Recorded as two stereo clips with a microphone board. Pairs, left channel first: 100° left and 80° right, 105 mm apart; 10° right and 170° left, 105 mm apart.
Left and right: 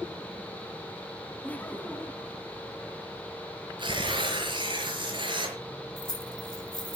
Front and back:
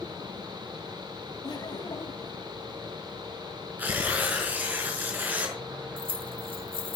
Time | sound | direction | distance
1.4 | laughter | 25° left | 1.7 m
3.8 | tearing paper | 115° right | 5 m
6.0 | keys jangling | 145° left | 2 m